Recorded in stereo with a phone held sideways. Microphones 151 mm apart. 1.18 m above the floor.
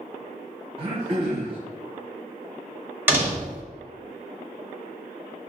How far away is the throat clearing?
About 1.1 m.